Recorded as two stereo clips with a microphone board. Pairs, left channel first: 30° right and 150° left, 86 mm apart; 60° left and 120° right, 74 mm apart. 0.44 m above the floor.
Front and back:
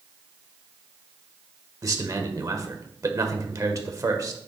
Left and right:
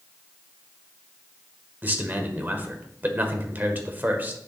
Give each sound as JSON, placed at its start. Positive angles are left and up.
{"t": 1.8, "sound": "a man speaking", "azimuth_deg": -175, "distance_m": 1.3}